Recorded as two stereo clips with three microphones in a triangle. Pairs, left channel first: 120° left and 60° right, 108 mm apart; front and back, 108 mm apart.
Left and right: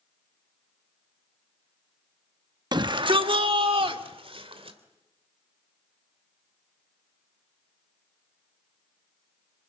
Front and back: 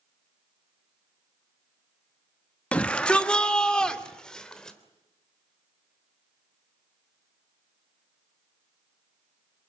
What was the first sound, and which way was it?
A shout, 75° right.